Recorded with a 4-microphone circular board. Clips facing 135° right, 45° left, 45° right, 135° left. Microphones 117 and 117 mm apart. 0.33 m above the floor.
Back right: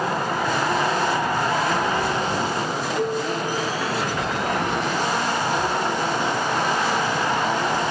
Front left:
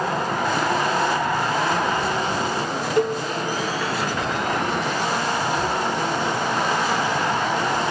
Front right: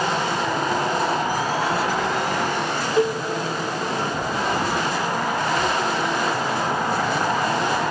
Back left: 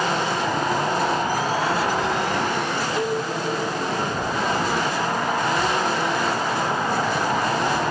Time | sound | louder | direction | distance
3.0 | a cowbell | front left 4 dB, front right 5 dB | 10° left | 4 m